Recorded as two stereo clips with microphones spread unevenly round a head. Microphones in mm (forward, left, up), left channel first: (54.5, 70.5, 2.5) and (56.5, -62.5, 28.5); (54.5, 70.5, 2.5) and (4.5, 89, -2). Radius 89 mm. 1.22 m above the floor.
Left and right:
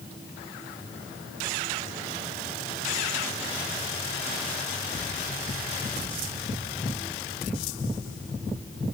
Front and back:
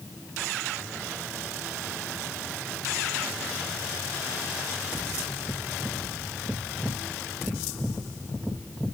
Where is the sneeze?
I don't hear a sneeze.